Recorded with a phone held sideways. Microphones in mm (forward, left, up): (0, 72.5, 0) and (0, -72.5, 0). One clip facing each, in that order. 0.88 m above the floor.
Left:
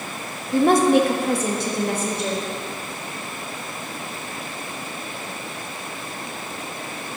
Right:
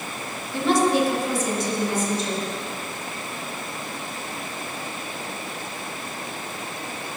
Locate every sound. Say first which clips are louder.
0.5 s a woman speaking: left 5 dB; 45° left (ahead or behind), 0.7 m; by 2.5 s 65° left (ahead or behind), 1.6 m